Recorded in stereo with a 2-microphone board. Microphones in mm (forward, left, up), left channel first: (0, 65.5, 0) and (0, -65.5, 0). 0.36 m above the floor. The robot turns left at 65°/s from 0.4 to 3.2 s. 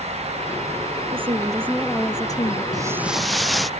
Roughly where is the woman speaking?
Behind right.